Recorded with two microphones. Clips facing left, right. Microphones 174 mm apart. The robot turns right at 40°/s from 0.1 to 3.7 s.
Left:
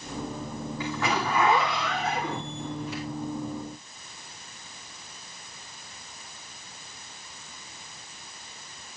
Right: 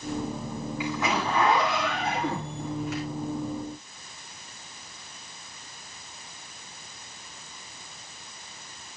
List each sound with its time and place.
0.8 s a zipper: 170° right, 6.5 m; by 3.0 s 80° right, 6.5 m